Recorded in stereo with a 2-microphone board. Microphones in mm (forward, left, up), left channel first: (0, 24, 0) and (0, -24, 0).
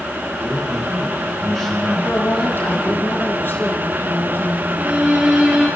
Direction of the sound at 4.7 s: 20° right (ahead or behind).